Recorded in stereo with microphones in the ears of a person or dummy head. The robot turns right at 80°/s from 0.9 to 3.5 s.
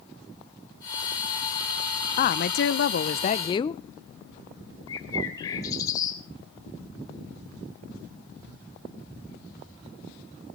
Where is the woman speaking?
40° left, 0.6 m; by 3.8 s 150° left, 0.6 m.